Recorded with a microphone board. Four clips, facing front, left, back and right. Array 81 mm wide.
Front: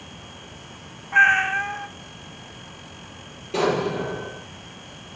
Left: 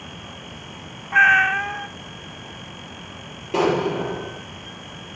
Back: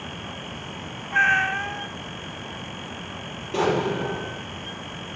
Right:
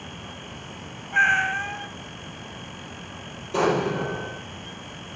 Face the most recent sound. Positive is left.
turn(degrees=90)